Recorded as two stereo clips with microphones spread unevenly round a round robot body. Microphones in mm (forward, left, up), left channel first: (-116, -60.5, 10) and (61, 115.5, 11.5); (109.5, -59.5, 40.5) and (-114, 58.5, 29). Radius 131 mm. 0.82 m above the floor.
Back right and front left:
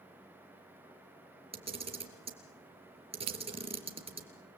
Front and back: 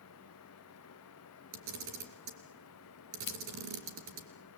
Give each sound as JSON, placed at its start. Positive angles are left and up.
{"t": 1.5, "sound": "a camera shutter", "azimuth_deg": 110, "distance_m": 3.5}
{"t": 3.3, "sound": "scissors", "azimuth_deg": 20, "distance_m": 0.7}